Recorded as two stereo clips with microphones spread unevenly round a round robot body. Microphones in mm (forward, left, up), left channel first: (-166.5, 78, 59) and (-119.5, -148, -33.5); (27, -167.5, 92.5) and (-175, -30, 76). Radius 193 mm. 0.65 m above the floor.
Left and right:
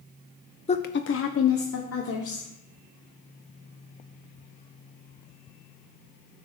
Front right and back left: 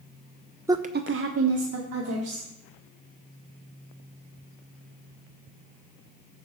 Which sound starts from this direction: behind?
A woman speaking, at 0.7 s.